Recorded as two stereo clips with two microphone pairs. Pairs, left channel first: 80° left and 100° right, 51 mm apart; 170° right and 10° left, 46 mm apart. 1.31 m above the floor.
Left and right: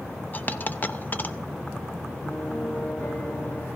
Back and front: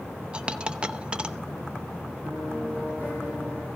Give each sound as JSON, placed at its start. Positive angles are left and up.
{"t": 0.3, "sound": "a dropped coin", "azimuth_deg": 65, "distance_m": 0.7}
{"t": 2.2, "sound": "a piano", "azimuth_deg": 60, "distance_m": 8.5}